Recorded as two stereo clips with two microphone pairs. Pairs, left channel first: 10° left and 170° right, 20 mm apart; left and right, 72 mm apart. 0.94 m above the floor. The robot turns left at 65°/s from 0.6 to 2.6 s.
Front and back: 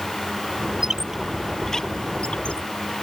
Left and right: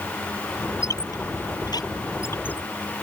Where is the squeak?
135° left; by 2.7 s 20° left.